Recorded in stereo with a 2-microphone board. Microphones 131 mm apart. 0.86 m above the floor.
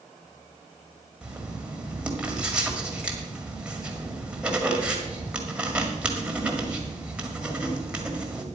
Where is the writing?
10° right (ahead or behind), 1.9 m.